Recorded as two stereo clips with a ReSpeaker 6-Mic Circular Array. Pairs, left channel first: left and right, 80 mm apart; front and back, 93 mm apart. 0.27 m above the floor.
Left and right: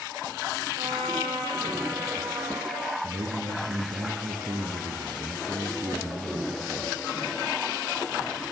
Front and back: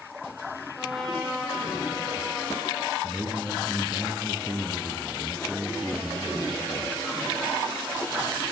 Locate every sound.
0.8 s a trumpet: 90° right, 7 m
3.0 s a man speaking: 105° right, 4 m